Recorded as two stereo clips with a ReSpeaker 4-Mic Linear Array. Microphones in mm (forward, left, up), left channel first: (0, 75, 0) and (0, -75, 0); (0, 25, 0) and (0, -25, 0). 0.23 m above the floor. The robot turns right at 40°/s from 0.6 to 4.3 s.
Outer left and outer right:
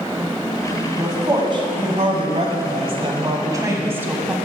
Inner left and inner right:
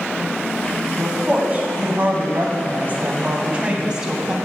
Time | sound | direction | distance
1.0 | a woman speaking | 145° right | 1.3 m